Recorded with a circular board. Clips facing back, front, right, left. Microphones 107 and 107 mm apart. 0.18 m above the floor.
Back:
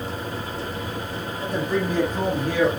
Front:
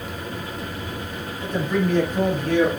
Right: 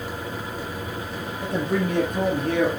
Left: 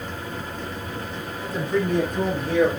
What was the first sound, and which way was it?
A man speaking, 105° right.